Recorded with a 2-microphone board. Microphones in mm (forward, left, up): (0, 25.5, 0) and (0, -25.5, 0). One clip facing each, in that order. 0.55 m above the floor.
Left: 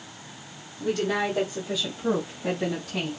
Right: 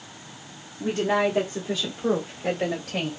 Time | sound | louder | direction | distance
0.8 | a woman speaking | right 3 dB | 30° right (ahead or behind) | 1.2 m